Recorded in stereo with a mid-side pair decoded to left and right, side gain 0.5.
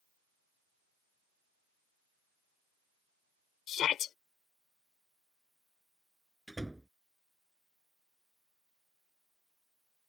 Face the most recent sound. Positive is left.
turn(degrees=-5)